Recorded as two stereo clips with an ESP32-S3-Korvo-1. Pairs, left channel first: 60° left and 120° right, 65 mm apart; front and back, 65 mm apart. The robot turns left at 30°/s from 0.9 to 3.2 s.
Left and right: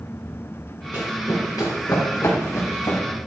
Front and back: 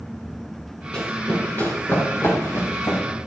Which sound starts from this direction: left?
Running footsteps, at 0.9 s.